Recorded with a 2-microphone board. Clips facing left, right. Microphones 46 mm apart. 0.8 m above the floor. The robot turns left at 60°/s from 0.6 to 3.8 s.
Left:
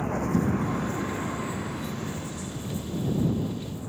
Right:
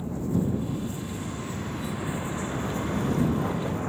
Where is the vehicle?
75° left; by 3.9 s 120° right.